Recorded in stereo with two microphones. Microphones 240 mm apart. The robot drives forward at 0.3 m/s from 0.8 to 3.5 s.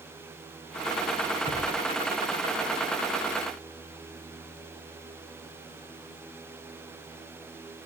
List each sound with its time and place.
1.5 s a thud: 30° left (ahead or behind), 4.5 m